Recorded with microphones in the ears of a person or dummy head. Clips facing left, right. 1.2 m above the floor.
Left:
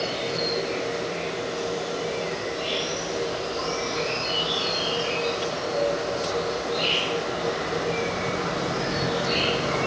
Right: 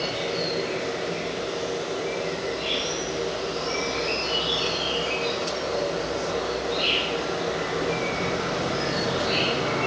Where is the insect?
10° right (ahead or behind), 1.8 m.